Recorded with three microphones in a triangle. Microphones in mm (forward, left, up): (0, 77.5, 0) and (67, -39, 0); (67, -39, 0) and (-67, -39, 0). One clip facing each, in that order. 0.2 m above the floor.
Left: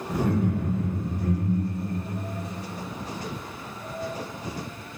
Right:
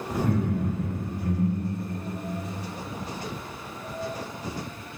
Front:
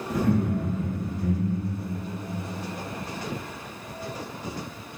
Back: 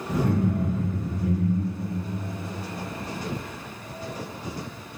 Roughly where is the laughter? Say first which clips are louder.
Left 1 dB, even; behind right.